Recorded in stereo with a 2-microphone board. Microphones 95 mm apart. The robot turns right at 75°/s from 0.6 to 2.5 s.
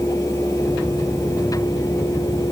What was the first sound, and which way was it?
Only background noise.